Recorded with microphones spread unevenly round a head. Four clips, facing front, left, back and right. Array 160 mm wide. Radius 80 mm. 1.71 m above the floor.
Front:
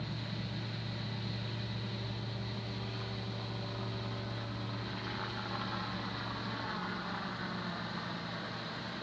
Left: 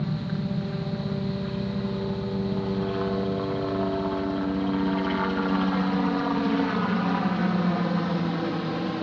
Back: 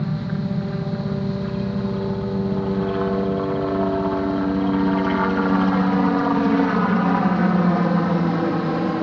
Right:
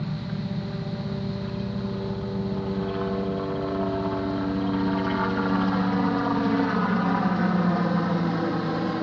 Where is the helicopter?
170° left; by 9.0 s 175° right.